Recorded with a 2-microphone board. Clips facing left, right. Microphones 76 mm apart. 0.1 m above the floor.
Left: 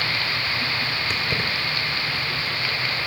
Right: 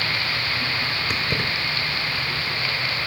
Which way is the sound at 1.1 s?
15° right (ahead or behind).